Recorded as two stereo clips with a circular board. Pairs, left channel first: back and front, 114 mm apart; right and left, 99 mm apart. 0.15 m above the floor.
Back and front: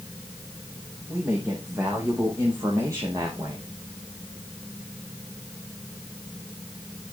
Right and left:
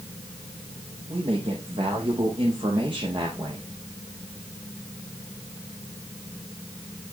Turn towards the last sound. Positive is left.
turn(degrees=55)